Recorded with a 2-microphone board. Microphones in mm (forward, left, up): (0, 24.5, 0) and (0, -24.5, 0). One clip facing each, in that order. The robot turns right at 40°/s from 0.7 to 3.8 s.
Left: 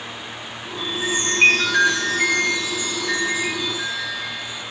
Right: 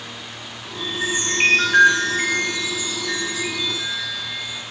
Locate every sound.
0.8 s a chime: 95° right, 9.5 m; by 4.6 s 25° left, 9.5 m